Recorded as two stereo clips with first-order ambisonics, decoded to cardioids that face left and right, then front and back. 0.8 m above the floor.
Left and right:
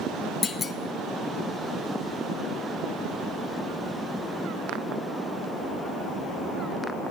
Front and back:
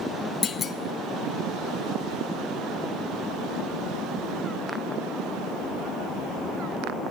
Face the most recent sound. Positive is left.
turn(degrees=40)